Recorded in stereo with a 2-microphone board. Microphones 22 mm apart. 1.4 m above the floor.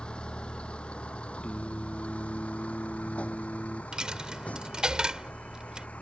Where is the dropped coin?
35° right (ahead or behind).